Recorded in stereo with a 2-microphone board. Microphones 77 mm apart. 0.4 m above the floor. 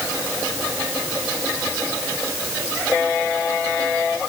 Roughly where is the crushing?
No crushing in this recording.